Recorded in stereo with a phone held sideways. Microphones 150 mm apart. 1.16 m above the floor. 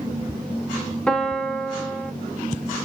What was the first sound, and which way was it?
A piano, 5° left (ahead or behind).